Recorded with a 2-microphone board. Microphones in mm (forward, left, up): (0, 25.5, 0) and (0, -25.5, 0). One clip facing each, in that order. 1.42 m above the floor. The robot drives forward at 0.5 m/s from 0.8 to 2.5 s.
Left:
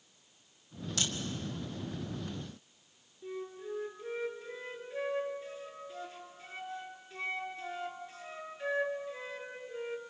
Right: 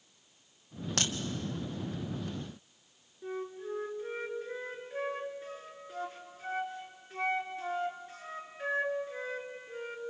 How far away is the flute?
About 3 m.